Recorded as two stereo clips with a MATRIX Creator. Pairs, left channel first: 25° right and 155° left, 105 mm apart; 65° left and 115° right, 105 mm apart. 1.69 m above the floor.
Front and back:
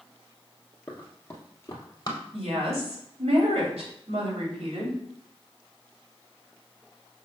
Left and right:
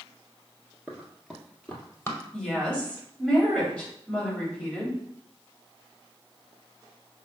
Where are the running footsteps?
60° right, 1.7 m; by 2.2 s 15° left, 2.5 m.